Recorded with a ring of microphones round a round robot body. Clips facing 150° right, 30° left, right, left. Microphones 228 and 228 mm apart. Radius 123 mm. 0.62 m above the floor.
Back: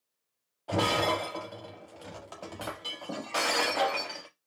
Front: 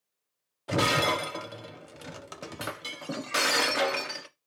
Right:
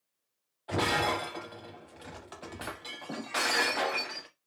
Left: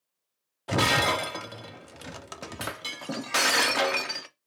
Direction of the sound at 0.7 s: 90° left.